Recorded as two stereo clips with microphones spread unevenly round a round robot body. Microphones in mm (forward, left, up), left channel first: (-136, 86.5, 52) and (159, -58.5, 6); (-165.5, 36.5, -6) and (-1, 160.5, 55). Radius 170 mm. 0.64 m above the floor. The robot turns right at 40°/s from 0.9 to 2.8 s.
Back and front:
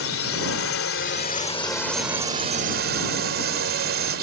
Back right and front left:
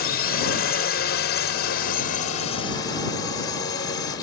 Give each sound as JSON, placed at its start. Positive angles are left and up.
{"t": 0.0, "sound": "a drone", "azimuth_deg": -155}